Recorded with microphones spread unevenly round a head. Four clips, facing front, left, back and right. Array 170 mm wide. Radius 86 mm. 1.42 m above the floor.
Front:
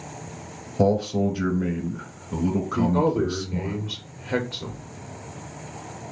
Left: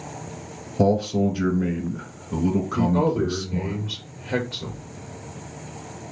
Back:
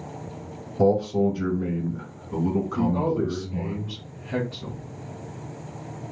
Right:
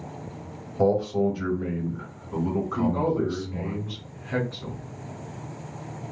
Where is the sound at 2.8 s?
10° left, 1.6 m.